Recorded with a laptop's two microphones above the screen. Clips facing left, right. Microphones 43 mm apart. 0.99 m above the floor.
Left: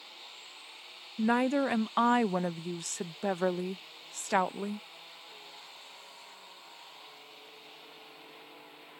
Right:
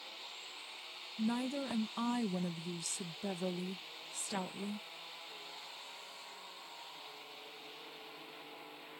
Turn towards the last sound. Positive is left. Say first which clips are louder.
# left 10 dB
turn(degrees=60)  # may be behind; listen again after turning